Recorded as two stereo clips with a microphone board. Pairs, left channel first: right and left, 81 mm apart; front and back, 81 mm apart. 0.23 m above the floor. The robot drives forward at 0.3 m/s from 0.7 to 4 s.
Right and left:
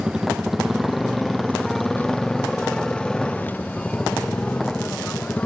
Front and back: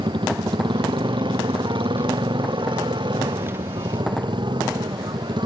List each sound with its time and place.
0.0 s a motorcycle: 175° left; by 5.5 s 165° right